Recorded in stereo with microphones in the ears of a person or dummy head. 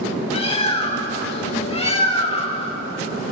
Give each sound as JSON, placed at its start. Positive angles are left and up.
{"t": 0.3, "sound": "a bird", "side_deg": 30, "distance_m": 1.2}